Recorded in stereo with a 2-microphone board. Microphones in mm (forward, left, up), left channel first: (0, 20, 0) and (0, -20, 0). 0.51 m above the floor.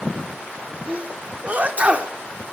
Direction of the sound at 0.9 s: 40° right (ahead or behind).